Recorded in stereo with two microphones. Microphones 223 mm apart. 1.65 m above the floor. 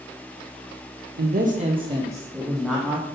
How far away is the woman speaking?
About 0.7 m.